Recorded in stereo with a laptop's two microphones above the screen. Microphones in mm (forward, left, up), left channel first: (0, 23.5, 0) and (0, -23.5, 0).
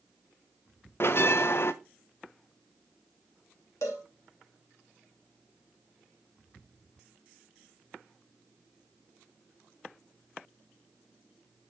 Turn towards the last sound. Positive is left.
turn(degrees=70)  # may be behind; listen again after turning